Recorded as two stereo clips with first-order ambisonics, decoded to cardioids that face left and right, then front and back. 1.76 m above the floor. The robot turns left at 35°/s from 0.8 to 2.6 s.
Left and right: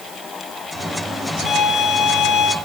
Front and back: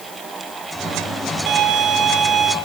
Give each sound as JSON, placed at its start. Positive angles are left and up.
{"t": 1.5, "sound": "a violin", "azimuth_deg": 150, "distance_m": 2.5}